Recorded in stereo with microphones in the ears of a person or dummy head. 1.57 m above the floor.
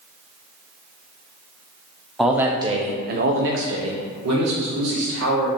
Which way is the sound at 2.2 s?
Centre (ahead or behind).